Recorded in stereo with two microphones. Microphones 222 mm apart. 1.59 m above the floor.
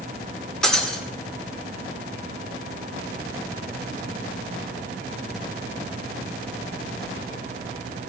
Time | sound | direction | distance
0.6 | breaking glass | 5° left (ahead or behind) | 2 m